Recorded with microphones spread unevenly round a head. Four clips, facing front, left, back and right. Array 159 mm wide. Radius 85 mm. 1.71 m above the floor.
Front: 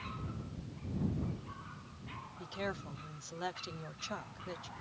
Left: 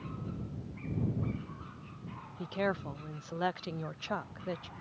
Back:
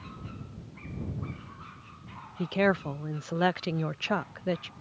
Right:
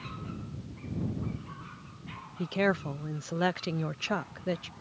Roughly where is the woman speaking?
Behind right.